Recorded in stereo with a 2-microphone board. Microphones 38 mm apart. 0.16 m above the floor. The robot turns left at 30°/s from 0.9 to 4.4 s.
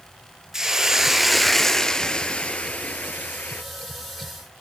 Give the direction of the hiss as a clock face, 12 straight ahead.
5 o'clock.